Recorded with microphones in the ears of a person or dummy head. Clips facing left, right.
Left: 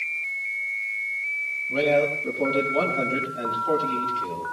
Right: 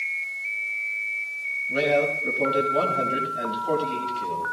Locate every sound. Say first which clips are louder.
1.7 s a man speaking: left 1 dB; 25° right (ahead or behind), 5.5 m; by 4.4 s 5° right (ahead or behind), 5.5 m